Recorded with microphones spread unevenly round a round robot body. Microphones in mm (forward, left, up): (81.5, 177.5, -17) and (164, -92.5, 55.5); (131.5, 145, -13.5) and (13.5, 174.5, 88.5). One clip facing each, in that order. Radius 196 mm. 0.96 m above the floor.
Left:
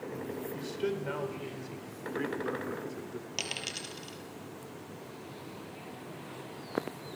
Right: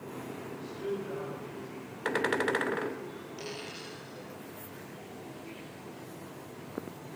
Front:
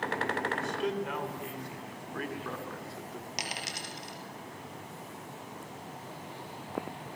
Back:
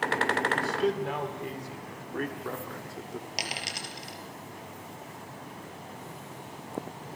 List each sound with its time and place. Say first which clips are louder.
0.5 s a man speaking: left 1 dB, back 4 dB; 120° left, 4 m; by 3.3 s 130° left, 3 m
3.4 s a dropped coin: right 2 dB, back 2 dB; 120° left, 4.5 m